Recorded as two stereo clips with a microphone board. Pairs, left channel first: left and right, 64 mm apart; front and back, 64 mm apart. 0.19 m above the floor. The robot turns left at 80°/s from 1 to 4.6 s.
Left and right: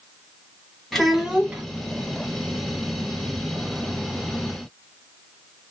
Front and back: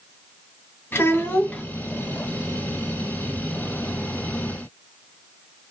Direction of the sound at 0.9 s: Straight ahead.